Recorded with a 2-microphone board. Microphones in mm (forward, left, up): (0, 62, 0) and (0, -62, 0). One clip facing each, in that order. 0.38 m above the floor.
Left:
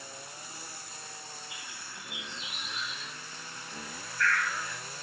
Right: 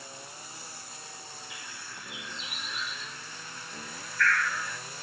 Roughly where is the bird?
Left.